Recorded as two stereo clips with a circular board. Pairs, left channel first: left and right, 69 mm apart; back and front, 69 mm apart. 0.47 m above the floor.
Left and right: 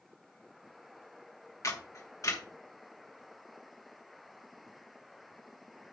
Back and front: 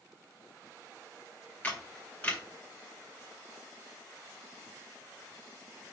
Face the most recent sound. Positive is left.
turn(degrees=115)